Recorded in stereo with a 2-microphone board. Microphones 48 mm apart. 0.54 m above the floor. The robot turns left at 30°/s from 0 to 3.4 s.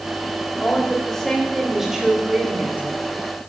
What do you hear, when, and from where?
0.6 s a woman speaking: 30° left, 2 m; by 3.0 s 45° right, 2 m